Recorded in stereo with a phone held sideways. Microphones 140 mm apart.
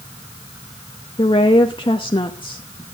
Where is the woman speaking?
35° left (ahead or behind), 0.8 m.